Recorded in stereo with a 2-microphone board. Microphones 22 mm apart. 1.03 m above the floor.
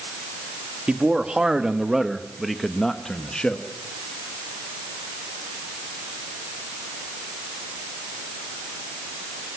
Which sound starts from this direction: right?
A man speaking, at 0.9 s.